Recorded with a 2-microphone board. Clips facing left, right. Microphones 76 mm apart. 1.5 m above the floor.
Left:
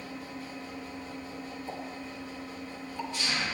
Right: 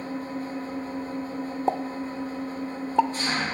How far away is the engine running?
About 1.9 m.